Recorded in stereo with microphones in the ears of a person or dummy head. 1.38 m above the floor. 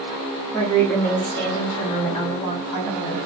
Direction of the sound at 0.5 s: 10° left (ahead or behind).